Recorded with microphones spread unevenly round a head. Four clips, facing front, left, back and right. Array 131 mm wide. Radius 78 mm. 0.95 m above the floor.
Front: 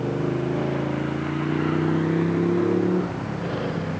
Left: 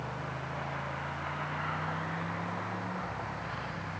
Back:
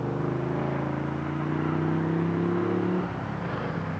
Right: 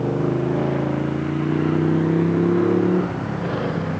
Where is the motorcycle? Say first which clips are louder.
Right 18 dB, front 4 dB; 75° right; by 4.0 s 70° right.